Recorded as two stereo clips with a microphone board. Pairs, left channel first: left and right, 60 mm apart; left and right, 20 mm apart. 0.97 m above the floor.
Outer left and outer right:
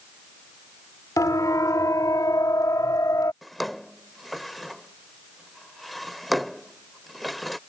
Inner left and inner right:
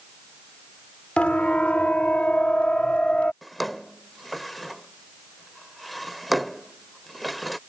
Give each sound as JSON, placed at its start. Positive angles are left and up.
{"t": 1.2, "sound": "a siren", "side_deg": 80}
{"t": 3.4, "sound": "a drawer", "side_deg": 0}